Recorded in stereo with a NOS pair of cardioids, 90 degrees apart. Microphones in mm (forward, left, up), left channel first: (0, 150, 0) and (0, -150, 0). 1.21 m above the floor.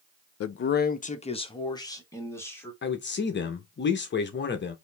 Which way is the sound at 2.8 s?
35° left.